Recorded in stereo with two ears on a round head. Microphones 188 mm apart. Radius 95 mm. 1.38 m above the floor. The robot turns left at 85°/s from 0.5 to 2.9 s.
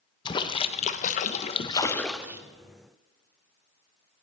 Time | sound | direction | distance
0.2 | a splash | 140° left | 0.6 m